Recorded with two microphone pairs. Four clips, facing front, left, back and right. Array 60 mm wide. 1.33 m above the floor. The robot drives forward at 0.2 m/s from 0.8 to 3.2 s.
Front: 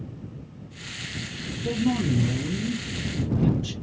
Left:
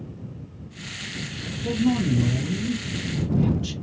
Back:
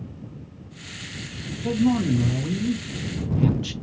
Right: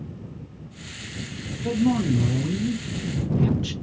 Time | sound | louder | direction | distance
1.6 | a man speaking | right 1 dB, back 3 dB | 145° right | 1.4 m